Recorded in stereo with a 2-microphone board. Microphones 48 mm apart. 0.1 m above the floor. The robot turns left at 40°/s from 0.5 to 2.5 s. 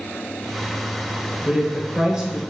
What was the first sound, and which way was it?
A woman speaking, 25° right (ahead or behind).